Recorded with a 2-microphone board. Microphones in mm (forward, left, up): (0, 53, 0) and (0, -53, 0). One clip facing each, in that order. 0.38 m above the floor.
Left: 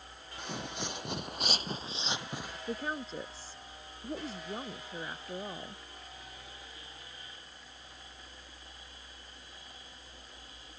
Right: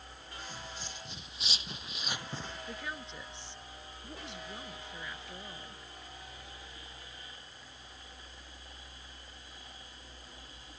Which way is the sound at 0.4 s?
70° left (ahead or behind).